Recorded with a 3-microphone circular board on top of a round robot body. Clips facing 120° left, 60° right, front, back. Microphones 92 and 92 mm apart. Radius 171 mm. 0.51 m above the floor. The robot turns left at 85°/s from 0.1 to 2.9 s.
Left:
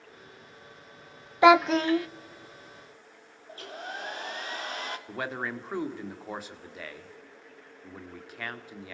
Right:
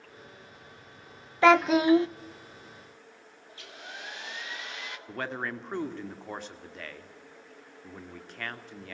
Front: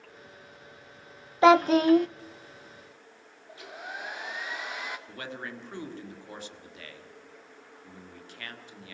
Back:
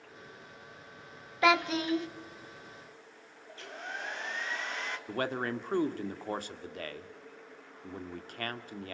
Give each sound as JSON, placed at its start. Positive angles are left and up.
{"t": 1.4, "sound": "a child speaking", "azimuth_deg": 50, "distance_m": 0.7}
{"t": 3.5, "sound": "a hair dryer", "azimuth_deg": 80, "distance_m": 2.5}
{"t": 5.1, "sound": "a man speaking", "azimuth_deg": -155, "distance_m": 2.0}